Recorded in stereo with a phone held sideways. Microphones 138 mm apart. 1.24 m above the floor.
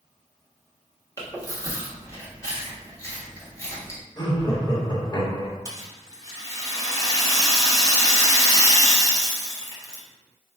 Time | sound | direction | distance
1.2 | chewing | 25° left (ahead or behind) | 1.0 m
4.2 | laughter | 30° left (ahead or behind) | 1.0 m
5.7 | a rattle | 25° left (ahead or behind) | 0.7 m